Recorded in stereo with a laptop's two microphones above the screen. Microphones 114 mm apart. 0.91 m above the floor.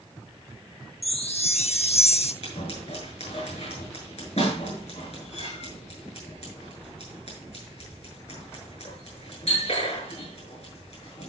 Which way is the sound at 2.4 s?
65° left (ahead or behind).